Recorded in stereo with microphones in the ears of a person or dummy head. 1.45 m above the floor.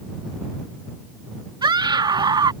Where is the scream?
25° right (ahead or behind).